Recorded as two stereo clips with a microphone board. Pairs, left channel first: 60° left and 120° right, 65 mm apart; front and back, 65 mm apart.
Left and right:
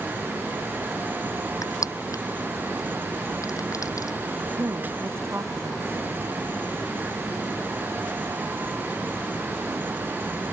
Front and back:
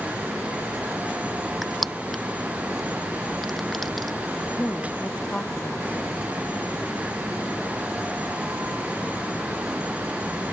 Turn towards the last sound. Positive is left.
turn(degrees=-70)